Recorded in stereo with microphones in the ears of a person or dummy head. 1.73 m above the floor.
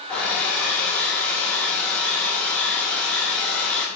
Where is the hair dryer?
10° left (ahead or behind), 0.5 m.